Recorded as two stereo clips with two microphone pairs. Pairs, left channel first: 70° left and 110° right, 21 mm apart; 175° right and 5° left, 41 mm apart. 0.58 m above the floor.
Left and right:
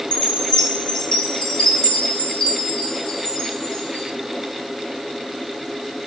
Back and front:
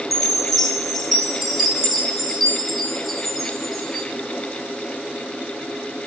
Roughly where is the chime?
Left.